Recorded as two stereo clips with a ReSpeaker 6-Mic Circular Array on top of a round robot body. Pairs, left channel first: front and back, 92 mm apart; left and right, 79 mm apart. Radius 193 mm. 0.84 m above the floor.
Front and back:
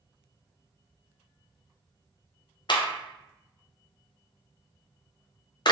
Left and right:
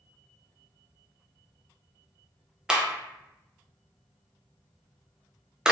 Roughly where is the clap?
Ahead.